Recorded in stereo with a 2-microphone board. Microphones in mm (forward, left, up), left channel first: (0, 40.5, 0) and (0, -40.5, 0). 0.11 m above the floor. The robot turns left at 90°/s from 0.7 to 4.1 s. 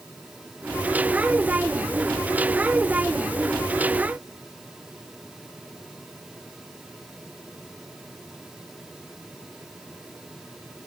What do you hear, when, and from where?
Only background noise.